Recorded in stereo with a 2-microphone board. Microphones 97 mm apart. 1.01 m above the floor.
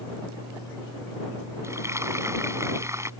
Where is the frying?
30° right (ahead or behind).